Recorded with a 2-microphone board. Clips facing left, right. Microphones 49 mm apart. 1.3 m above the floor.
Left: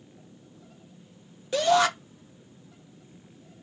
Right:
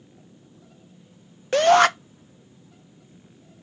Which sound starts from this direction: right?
A shout, at 1.5 s.